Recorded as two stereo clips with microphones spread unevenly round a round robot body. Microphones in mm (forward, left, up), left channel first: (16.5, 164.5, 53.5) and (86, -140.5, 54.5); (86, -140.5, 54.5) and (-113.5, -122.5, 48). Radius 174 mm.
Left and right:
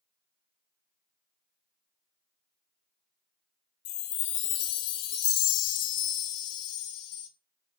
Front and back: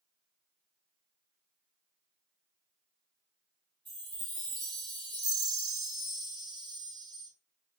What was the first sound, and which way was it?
A chime, 80° left.